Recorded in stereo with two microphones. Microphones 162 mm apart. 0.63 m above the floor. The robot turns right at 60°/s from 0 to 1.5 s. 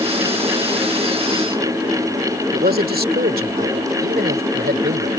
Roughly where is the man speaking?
Right.